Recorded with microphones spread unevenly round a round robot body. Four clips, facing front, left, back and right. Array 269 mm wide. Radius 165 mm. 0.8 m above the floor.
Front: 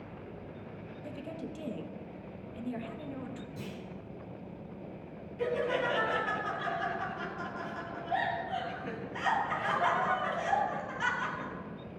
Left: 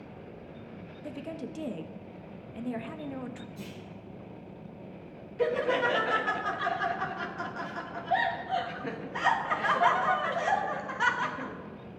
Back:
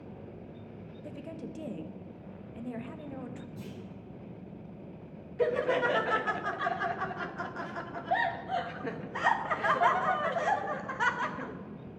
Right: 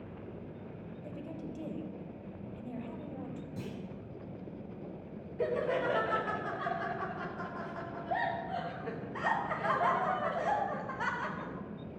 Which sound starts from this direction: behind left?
Laughter, at 5.4 s.